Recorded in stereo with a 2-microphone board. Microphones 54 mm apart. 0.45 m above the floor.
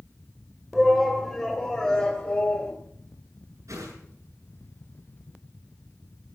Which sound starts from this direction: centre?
A shout, at 0.7 s.